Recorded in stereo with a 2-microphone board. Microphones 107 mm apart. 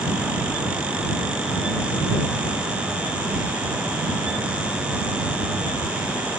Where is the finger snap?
No finger snap in this recording.